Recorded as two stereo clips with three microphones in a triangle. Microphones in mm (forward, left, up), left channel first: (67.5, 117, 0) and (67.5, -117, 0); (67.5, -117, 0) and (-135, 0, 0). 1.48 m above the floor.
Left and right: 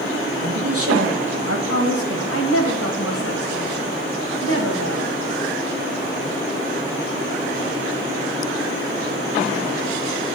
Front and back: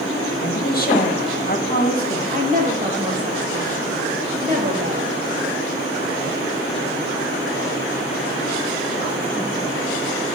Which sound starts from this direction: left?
A woman speaking, at 2.3 s.